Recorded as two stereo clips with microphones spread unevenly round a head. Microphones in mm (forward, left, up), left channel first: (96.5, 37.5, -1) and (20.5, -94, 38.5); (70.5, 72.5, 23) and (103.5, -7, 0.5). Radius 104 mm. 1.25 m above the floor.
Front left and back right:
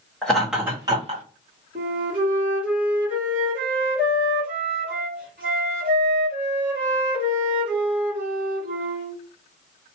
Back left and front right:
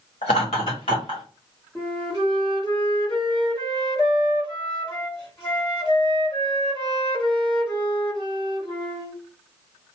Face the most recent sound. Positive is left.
turn(degrees=-170)